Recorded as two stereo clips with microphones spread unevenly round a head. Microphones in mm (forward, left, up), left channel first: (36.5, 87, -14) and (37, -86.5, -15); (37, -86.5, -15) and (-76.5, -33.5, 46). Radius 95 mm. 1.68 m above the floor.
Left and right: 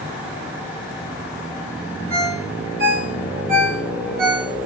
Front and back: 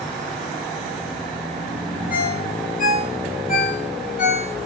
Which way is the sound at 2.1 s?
55° right.